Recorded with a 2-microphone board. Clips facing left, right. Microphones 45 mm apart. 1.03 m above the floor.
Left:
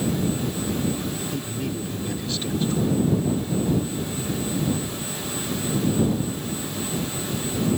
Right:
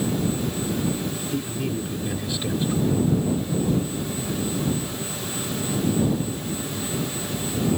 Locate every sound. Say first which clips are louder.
1.3 s a man speaking: right 2 dB; 15° right (ahead or behind)